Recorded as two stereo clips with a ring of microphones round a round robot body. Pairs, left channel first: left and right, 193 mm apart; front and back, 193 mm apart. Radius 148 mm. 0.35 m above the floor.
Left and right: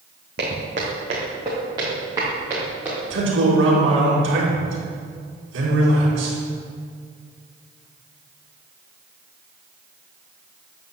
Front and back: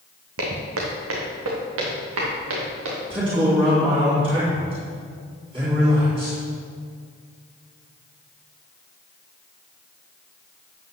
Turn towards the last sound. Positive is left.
turn(degrees=-110)